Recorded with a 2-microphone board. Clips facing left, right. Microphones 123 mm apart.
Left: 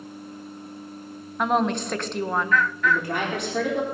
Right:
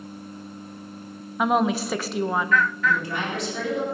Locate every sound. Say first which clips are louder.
1.4 s a woman speaking: right 1 dB; 5° right (ahead or behind), 1.2 m
2.8 s a woman speaking: left 1 dB; 55° left (ahead or behind), 3.5 m